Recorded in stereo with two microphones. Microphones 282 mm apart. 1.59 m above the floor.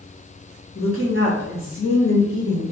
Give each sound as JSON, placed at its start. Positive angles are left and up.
{"t": 0.8, "sound": "a woman speaking", "side_deg": 55, "distance_m": 1.3}